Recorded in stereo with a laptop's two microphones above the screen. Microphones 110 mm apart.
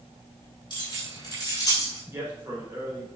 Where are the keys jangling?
40° left (ahead or behind), 3.5 m; by 2.0 s 35° left (ahead or behind), 2.5 m.